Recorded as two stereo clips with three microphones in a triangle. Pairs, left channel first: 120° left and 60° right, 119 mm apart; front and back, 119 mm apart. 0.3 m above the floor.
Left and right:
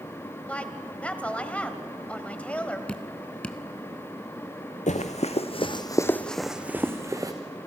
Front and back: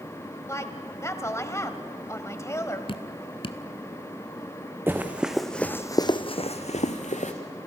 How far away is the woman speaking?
About 1.6 m.